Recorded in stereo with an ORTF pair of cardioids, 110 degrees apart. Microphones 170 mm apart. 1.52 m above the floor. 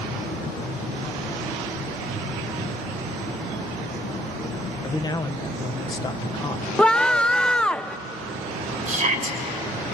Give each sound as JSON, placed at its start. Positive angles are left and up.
{"t": 4.8, "sound": "a man speaking", "azimuth_deg": 25, "distance_m": 1.6}
{"t": 6.8, "sound": "a scream", "azimuth_deg": 5, "distance_m": 1.1}
{"t": 8.9, "sound": "a shout", "azimuth_deg": -50, "distance_m": 7.5}